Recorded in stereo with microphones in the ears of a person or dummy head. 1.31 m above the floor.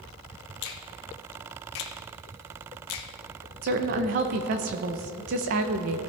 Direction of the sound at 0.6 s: 65° left (ahead or behind).